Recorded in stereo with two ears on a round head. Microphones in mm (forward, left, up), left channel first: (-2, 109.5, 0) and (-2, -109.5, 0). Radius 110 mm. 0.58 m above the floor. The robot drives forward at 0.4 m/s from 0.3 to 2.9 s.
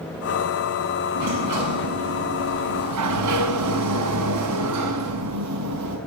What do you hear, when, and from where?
1.1 s a sliding door: 80° right, 5.5 m